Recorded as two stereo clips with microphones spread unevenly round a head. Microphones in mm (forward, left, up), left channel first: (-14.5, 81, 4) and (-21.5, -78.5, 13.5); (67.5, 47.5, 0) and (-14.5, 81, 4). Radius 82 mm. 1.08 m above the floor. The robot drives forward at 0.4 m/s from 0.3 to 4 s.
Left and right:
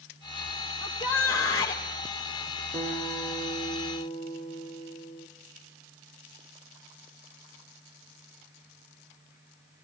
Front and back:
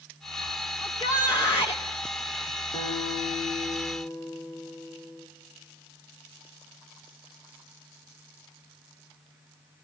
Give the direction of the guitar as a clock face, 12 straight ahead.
12 o'clock.